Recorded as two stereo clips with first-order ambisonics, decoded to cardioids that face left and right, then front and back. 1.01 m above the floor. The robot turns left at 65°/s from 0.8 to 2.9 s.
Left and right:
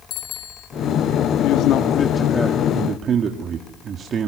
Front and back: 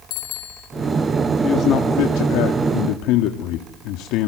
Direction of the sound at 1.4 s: 70° left.